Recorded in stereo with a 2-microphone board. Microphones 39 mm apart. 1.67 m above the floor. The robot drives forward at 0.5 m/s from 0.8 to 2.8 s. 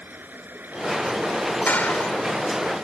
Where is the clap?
45° left (ahead or behind); by 2.2 s 40° left (ahead or behind).